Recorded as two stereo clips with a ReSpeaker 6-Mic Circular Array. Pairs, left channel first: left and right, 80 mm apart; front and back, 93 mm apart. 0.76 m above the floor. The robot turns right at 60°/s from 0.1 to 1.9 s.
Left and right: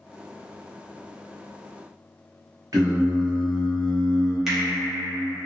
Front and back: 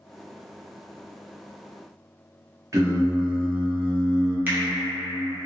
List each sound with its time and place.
2.7 s singing: 125° right, 0.7 m
4.5 s a finger snap: 165° right, 0.7 m